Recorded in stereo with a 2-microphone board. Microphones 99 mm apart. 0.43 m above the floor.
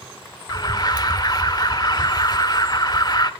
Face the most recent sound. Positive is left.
turn(degrees=40)  # may be behind; listen again after turning